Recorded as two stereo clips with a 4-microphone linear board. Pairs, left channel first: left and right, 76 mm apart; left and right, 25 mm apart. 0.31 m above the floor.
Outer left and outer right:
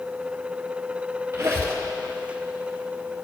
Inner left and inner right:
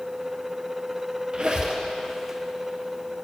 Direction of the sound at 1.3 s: 35° right (ahead or behind).